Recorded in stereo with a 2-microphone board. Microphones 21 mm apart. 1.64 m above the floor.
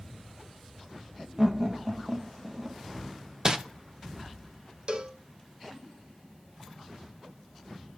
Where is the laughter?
15° right (ahead or behind), 1.4 m; by 2.8 s 50° right (ahead or behind), 2 m.